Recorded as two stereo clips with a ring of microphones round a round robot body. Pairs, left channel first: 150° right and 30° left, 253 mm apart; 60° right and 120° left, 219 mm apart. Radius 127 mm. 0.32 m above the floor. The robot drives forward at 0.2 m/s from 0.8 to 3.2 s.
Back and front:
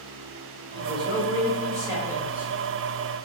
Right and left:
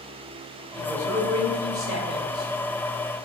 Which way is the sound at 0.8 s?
60° left.